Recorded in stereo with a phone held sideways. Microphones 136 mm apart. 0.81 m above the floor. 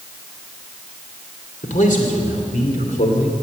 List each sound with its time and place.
1.6 s a man speaking: 70° left (ahead or behind), 2.5 m